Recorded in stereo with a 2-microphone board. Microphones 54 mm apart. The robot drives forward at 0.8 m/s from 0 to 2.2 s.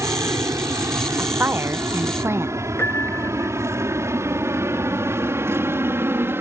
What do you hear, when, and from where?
0.0 s an aircraft: 70° right (ahead or behind); by 6.4 s 50° right (ahead or behind)
1.2 s a woman speaking: 35° right (ahead or behind); by 2.6 s 50° right (ahead or behind)
2.8 s a piano: 45° left (ahead or behind)